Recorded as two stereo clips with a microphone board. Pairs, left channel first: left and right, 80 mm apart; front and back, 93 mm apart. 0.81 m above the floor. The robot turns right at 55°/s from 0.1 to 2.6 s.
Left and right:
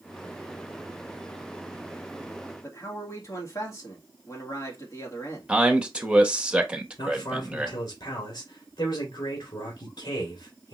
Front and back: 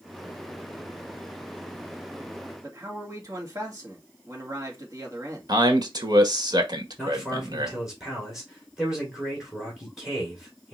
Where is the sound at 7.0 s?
95° left, 2 m.